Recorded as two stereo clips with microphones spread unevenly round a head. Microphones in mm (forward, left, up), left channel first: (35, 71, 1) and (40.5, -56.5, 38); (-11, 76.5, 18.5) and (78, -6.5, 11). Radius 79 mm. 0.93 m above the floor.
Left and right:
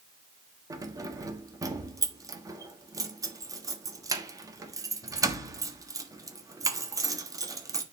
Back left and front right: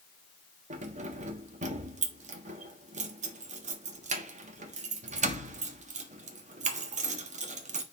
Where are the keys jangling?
20° right, 1.4 m.